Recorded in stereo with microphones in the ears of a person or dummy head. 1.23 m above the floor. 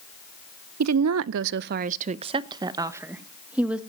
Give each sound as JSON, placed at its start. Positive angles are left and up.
{"t": 0.8, "sound": "a woman speaking", "side_deg": -80, "distance_m": 0.7}